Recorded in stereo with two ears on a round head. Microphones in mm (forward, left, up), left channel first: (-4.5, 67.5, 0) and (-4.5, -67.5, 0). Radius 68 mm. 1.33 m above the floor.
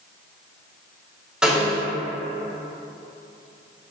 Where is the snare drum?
5° right (ahead or behind), 1.1 m.